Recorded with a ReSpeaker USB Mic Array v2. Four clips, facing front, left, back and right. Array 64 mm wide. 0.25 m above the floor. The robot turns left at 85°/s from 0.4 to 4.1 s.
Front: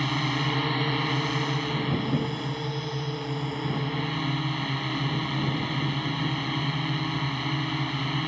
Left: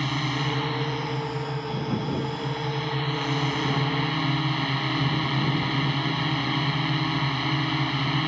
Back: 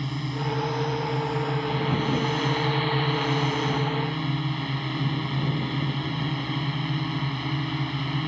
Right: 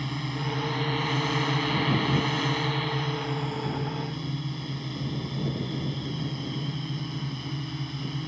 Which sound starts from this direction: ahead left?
A drone, at 0.0 s.